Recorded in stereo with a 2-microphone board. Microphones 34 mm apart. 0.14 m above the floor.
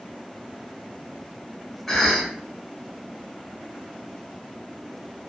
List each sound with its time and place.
1.9 s a cough: 5° left (ahead or behind), 1.0 m